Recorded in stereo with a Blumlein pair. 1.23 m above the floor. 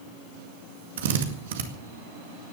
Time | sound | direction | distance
1.0 | a drill | 55° right | 1.9 m